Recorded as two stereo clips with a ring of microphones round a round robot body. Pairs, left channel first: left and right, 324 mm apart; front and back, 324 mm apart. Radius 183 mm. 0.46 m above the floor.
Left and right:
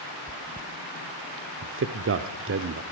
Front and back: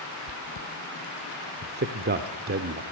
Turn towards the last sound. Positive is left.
turn(degrees=-130)